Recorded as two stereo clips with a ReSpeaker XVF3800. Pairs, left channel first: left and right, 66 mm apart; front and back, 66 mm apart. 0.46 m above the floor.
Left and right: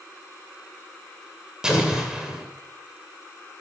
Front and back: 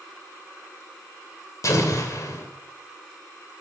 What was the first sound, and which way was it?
An explosion, 10° right.